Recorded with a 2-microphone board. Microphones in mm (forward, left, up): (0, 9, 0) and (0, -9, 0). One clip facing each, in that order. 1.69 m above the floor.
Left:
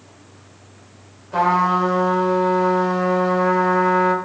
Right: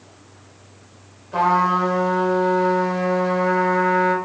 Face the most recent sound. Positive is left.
turn(degrees=5)  # may be behind; listen again after turning